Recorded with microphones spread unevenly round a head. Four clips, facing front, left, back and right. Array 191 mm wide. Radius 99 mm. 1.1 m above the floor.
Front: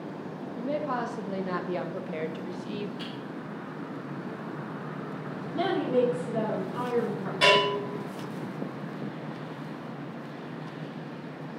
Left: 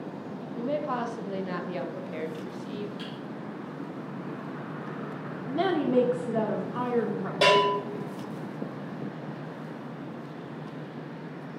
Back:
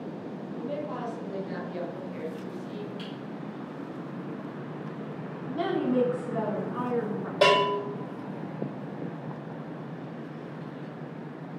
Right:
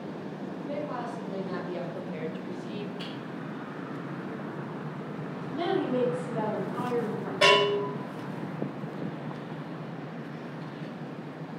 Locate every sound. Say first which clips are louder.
0.6 s a woman speaking: left 6 dB, front 4 dB; 50° left, 1.4 m; by 2.9 s 10° right, 1.7 m
3.0 s typing on a keyboard: even, front 1 dB; 145° left, 3.5 m
5.5 s a woman speaking: left 3 dB, even; 90° left, 2.5 m
7.4 s a bell: left 1 dB, back 1 dB; 150° left, 3.5 m